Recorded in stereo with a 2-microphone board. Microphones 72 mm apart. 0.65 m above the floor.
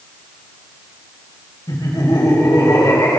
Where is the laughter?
75° left (ahead or behind), 3 m; by 3.2 s 60° left (ahead or behind), 3.5 m.